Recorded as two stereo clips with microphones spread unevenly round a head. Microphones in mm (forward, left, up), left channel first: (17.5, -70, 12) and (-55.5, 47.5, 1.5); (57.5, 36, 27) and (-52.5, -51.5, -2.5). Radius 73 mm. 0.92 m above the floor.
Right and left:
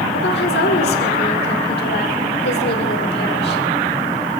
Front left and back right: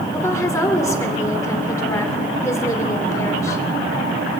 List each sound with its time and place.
0.1 s a woman speaking: 30° right, 2.5 m